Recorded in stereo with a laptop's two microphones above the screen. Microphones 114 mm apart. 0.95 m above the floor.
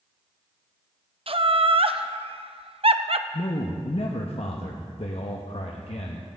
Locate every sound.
1.3 s laughter: 55° right (ahead or behind), 0.7 m
3.3 s a man speaking: 65° left (ahead or behind), 0.9 m